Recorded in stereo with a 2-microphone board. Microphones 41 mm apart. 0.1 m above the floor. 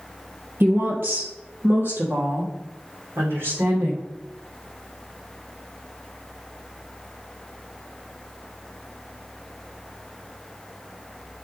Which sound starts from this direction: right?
A woman speaking, at 0.6 s.